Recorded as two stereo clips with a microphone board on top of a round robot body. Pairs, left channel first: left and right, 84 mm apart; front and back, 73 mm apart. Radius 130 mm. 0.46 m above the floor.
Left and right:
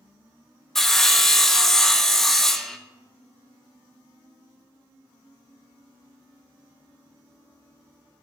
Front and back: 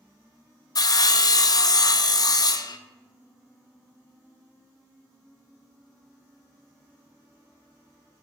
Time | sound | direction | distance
0.8 | sawing | 5° left | 0.5 m